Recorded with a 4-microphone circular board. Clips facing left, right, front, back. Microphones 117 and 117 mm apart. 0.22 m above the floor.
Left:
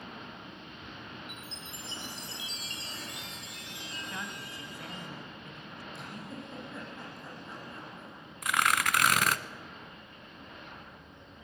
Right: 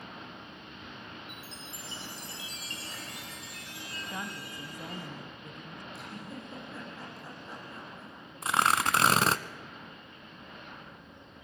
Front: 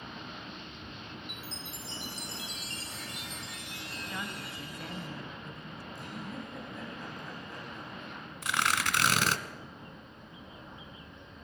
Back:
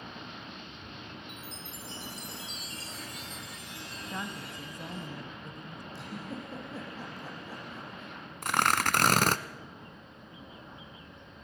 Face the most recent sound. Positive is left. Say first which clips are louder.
# right 2 dB, back 4 dB
turn(degrees=-145)